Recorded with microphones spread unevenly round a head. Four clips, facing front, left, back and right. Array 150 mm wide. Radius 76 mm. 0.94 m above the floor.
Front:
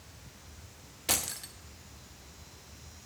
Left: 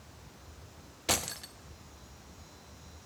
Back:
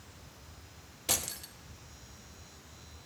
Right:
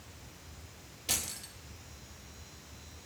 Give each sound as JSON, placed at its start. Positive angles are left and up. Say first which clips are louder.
{"t": 1.1, "sound": "keys jangling", "louder": "left 9 dB, front 2 dB", "azimuth_deg": 75, "distance_m": 0.5}